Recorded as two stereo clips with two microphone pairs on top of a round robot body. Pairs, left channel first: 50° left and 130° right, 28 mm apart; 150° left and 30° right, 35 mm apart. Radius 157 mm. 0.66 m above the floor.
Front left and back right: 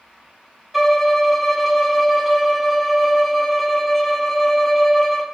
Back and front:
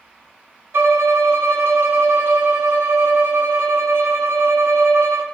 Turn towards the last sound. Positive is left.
turn(degrees=-45)